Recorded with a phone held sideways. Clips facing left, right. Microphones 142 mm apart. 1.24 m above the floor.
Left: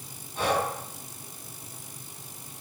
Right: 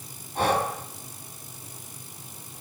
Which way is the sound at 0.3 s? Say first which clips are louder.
Right 2 dB; 65° right (ahead or behind).